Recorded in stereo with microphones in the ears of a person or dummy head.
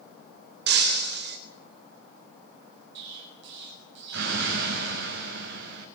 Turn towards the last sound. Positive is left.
turn(degrees=-70)  # may be behind; listen again after turning